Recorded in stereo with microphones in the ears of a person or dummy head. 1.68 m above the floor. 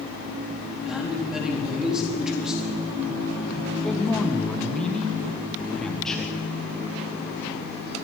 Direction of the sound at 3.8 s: 5° left (ahead or behind).